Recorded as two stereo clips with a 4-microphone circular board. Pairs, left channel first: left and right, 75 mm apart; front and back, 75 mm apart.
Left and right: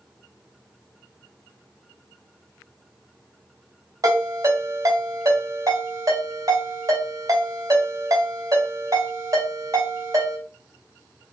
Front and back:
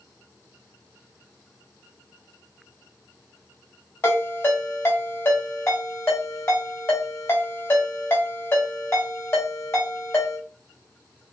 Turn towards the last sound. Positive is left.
turn(degrees=-50)